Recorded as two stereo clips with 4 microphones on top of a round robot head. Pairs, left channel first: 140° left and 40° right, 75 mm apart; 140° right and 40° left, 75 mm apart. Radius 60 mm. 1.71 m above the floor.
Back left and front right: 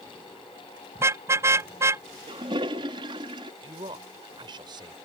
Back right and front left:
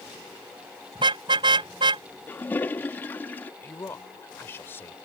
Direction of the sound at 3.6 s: 75° right.